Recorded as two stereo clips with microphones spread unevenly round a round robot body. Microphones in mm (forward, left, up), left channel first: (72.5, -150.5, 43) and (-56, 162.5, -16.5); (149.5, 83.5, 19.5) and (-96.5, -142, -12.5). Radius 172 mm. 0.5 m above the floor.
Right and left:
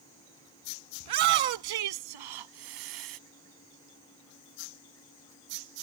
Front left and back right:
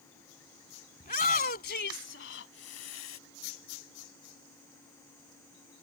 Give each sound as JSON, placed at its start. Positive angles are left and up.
{"t": 1.0, "sound": "a shout", "azimuth_deg": 115}